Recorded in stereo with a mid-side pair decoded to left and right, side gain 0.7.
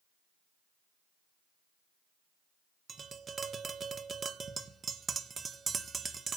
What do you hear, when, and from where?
2.9 s tapping: 25° right, 1.7 m